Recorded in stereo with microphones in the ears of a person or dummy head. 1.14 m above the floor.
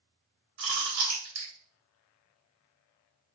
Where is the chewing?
70° right (ahead or behind), 1.7 m.